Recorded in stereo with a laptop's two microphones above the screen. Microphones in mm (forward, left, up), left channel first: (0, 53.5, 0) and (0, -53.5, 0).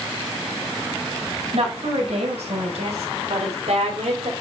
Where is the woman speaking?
80° right, 4.5 m.